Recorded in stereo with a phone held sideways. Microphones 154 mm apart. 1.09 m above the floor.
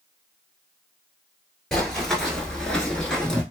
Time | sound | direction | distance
1.7 | running footsteps | 5° left (ahead or behind) | 1.2 m